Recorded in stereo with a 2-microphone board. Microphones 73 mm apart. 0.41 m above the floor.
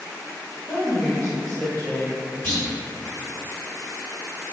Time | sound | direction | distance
0.7 | a woman speaking | 50° left (ahead or behind) | 1.1 m
2.4 | a clunk | 25° left (ahead or behind) | 1.8 m